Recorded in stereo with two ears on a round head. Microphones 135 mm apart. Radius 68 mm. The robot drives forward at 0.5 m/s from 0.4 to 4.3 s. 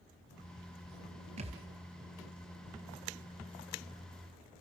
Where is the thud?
45° right (ahead or behind), 2 m.